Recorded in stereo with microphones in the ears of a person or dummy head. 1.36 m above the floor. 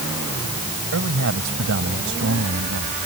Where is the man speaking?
65° right (ahead or behind).